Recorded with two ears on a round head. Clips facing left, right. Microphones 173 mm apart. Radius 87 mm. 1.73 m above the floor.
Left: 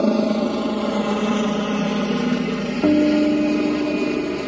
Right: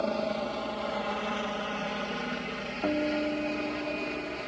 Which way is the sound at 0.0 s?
65° left (ahead or behind).